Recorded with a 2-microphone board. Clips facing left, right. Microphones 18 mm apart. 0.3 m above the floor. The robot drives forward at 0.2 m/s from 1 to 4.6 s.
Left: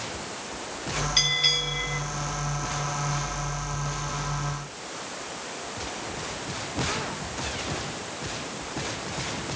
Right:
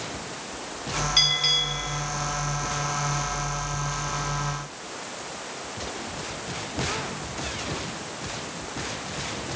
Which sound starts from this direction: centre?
A bell, at 1.2 s.